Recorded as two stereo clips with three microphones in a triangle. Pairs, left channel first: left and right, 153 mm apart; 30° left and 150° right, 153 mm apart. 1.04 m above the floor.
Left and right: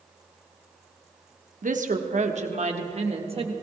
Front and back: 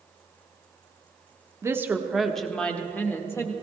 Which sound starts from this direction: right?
A woman speaking, at 1.6 s.